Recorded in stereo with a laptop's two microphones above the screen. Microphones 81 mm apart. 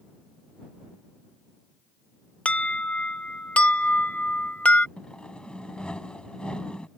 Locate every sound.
2.5 s an alarm: 15° left (ahead or behind)
5.0 s sawing: 10° left (ahead or behind)